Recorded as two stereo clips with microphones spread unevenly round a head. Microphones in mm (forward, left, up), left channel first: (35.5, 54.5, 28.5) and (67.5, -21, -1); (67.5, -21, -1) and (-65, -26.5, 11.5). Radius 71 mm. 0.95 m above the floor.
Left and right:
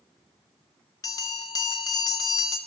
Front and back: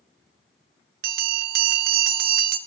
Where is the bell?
Straight behind, 0.6 m.